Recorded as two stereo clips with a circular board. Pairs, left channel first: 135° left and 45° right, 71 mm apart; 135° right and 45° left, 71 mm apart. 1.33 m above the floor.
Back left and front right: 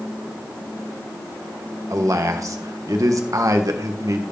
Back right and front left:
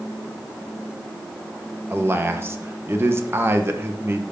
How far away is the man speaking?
About 1.4 m.